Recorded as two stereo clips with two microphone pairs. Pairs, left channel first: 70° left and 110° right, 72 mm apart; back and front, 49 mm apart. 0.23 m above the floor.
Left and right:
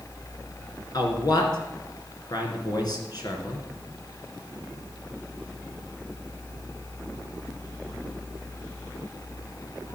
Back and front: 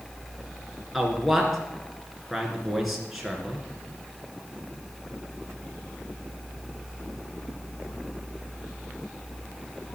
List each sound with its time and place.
0.9 s a man speaking: 90° left, 3 m